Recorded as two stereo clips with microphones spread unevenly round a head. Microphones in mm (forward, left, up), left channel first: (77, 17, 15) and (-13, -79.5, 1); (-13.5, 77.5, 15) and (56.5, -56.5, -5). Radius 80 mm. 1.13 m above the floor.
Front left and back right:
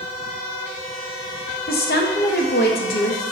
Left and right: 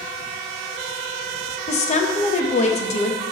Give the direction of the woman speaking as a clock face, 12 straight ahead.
10 o'clock.